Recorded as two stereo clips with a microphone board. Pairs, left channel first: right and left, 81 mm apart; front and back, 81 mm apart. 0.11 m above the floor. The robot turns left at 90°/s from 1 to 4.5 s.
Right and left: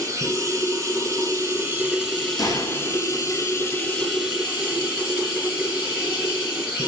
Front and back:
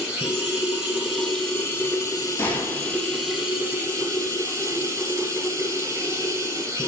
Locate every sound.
0.0 s running water: 105° left, 1.7 m; by 6.9 s 150° left, 1.7 m
2.4 s a gunshot: 60° right, 0.7 m; by 3.0 s 120° right, 0.7 m